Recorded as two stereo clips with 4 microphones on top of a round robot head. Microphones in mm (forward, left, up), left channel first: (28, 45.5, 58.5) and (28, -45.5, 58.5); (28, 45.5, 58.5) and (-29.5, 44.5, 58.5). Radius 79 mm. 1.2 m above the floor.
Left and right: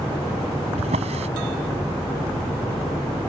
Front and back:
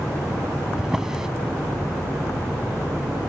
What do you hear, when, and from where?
0.8 s a drawer: 95° right